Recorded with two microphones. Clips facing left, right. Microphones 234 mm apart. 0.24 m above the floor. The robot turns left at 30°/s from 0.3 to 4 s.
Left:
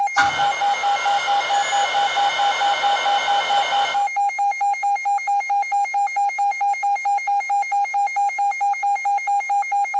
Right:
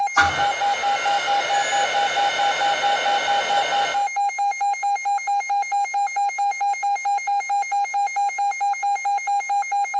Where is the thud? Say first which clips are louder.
Even; 75° right (ahead or behind), 2 m; by 0.5 s 80° right, 2 m.